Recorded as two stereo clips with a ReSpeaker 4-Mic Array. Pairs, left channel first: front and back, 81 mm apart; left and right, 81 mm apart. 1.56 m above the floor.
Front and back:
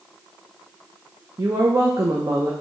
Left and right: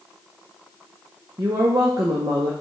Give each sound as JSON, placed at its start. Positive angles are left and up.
{"t": 1.4, "sound": "a woman speaking", "azimuth_deg": -130, "distance_m": 0.5}